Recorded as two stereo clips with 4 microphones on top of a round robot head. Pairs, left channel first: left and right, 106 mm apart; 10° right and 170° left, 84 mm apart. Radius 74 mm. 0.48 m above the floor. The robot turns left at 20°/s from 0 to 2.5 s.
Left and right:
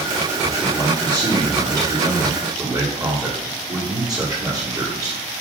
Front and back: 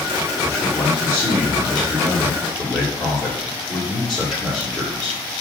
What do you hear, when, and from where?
0.4 s a man speaking: 60° right, 1.5 m; by 5.2 s 105° right, 1.5 m